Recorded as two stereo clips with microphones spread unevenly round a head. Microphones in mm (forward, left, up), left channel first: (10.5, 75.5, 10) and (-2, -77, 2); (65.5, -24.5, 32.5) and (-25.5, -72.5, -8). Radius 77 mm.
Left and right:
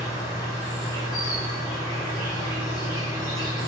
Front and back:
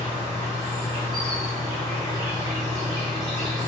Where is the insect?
155° left, 1.7 m.